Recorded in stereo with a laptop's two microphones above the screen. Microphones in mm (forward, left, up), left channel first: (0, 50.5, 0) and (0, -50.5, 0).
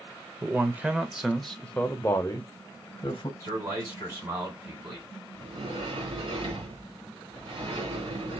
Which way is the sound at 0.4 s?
20° right (ahead or behind).